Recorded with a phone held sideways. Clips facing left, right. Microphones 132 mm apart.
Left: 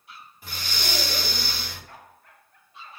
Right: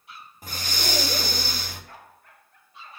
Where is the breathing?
45° right (ahead or behind), 1.2 m.